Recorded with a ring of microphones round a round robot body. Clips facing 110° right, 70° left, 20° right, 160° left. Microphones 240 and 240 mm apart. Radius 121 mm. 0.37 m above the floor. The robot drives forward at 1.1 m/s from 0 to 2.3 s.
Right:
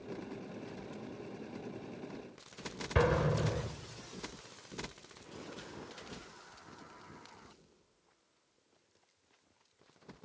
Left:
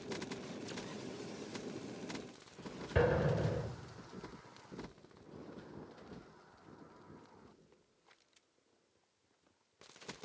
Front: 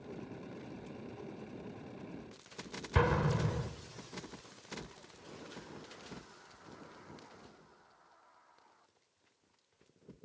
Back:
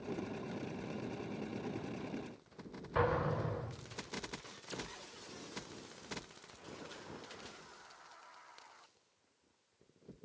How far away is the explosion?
About 1.0 m.